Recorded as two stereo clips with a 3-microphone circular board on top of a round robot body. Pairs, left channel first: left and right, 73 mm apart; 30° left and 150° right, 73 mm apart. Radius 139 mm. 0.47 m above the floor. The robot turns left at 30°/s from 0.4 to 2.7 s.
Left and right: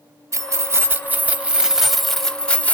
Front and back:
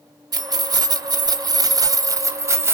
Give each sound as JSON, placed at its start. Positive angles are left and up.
{"t": 0.3, "sound": "keys jangling", "azimuth_deg": -130, "distance_m": 0.8}